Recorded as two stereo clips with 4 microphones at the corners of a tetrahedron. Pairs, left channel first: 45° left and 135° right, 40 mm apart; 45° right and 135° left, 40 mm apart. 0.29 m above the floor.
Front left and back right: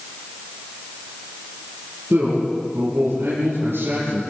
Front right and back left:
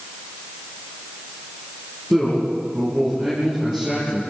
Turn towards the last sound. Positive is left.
turn(degrees=-160)